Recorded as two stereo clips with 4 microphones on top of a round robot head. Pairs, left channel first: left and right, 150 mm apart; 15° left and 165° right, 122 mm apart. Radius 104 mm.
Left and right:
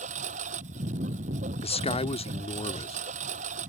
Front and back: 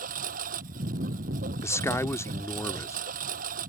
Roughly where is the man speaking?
Left.